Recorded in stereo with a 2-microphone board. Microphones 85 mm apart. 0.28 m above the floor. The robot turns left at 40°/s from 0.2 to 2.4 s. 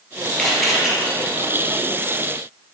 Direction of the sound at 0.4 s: 10° left (ahead or behind).